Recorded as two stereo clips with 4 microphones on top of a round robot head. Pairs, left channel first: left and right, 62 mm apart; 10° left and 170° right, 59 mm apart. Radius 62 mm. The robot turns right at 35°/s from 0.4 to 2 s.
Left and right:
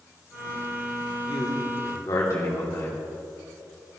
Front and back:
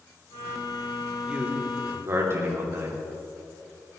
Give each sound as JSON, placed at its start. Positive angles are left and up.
{"t": 1.3, "sound": "a man speaking", "azimuth_deg": 120, "distance_m": 3.0}